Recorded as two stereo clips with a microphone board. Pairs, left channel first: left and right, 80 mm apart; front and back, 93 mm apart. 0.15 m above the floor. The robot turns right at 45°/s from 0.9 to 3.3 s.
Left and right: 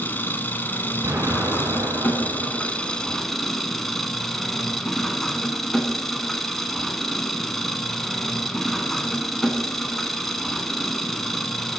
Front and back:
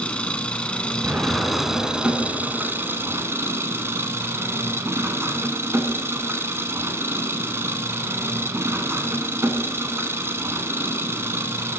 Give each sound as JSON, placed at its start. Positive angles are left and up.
{"t": 0.0, "sound": "an engine running", "azimuth_deg": 65, "distance_m": 0.7}
{"t": 1.0, "sound": "an explosion", "azimuth_deg": -125, "distance_m": 1.1}